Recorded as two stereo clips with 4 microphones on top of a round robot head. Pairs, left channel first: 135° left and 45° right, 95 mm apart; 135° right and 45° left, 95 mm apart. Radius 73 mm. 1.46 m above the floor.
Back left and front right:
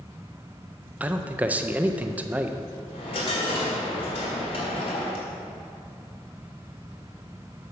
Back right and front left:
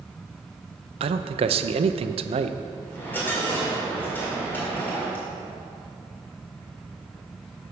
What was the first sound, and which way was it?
A man speaking, 30° left.